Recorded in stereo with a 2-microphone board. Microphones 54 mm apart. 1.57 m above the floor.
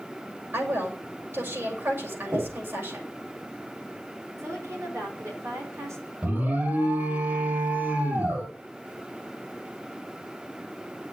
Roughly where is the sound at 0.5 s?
Right.